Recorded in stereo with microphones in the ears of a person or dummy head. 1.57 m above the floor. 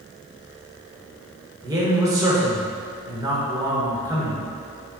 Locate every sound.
1.6 s a man speaking: 20° right (ahead or behind), 1.1 m